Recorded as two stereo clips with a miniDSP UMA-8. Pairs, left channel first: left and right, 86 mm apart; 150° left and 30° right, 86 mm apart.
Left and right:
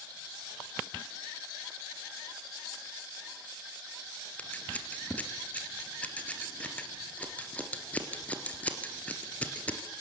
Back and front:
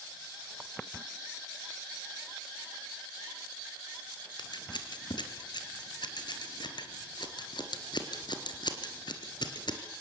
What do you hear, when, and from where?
4.4 s scissors: 160° left, 2.5 m